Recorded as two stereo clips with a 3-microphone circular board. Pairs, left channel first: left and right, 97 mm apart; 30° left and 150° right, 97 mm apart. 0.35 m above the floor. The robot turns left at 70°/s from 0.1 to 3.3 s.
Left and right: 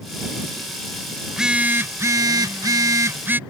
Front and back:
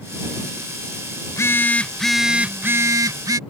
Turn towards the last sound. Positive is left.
turn(degrees=-145)